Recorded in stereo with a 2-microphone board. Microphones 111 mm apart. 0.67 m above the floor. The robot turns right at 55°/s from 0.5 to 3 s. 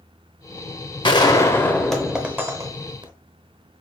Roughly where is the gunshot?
Behind left.